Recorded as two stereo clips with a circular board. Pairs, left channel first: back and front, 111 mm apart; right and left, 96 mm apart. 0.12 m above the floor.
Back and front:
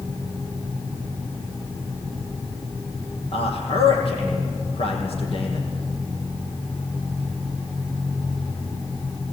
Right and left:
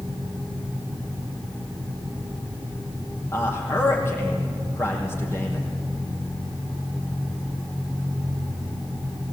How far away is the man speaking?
About 4.5 m.